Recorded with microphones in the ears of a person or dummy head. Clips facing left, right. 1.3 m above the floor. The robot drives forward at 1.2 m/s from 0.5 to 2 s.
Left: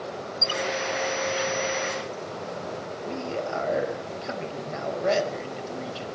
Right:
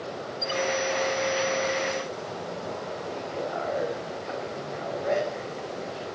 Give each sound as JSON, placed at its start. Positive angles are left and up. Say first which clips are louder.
{"t": 0.4, "sound": "a squeak", "louder": "right 2 dB", "side_deg": 25, "distance_m": 0.5}
{"t": 3.0, "sound": "a man speaking", "louder": "left 5 dB", "side_deg": 55, "distance_m": 5.5}